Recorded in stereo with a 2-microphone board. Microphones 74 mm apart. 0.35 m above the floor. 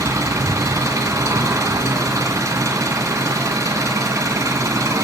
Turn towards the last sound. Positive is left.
turn(degrees=-45)  # may be behind; listen again after turning